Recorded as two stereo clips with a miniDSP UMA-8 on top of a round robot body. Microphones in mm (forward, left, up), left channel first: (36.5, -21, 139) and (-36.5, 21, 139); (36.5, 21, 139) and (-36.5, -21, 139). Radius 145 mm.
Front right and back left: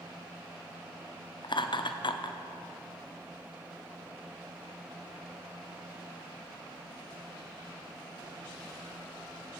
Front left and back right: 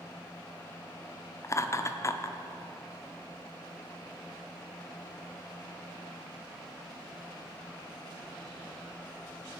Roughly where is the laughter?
Ahead.